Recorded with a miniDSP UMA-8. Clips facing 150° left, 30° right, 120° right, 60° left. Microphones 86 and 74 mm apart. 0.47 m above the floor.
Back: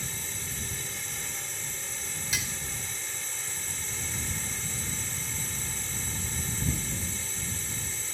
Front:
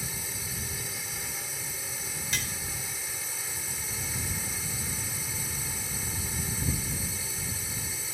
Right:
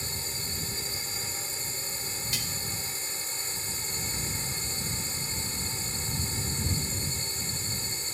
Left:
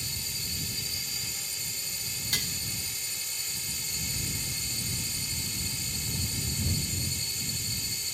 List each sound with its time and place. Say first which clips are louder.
0.0 s a drone: front 1 dB, right 3 dB; 110° right
2.3 s dishes clattering: even, left 4 dB; 65° left